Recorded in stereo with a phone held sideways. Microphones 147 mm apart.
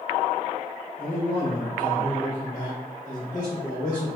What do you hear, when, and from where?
1.0 s a man speaking: 30° left (ahead or behind), 1.7 m; by 4.2 s 60° left (ahead or behind), 1.4 m